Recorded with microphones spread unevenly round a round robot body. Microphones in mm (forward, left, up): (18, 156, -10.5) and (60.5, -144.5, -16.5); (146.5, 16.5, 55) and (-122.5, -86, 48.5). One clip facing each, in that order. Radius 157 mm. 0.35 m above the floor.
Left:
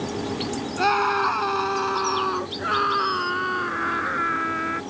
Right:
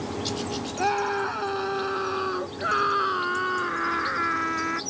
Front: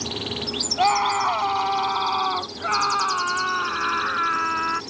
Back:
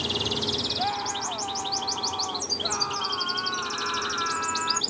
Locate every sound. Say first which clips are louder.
0.8 s a scream: even, front 8 dB; 35° left; by 4.8 s 5° right